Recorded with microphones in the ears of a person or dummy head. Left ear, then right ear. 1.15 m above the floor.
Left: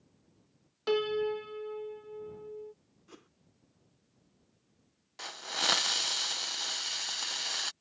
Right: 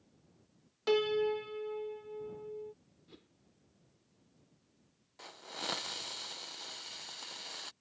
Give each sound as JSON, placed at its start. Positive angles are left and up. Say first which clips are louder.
{"t": 0.9, "sound": "a piano", "louder": "even", "side_deg": 0}
{"t": 3.1, "sound": "a whoosh", "louder": "left 4 dB", "side_deg": 50}
{"t": 5.2, "sound": "a hiss", "louder": "left 10 dB", "side_deg": 45}